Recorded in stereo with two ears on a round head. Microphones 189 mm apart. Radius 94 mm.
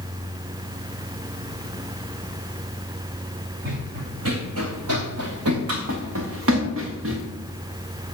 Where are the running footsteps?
55° right (ahead or behind), 1.8 m; by 7.2 s 65° right (ahead or behind), 3.5 m.